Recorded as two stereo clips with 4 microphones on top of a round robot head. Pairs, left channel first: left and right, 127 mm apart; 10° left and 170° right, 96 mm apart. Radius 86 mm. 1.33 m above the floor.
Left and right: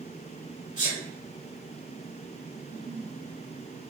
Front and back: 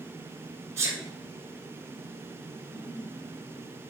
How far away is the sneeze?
About 5.5 m.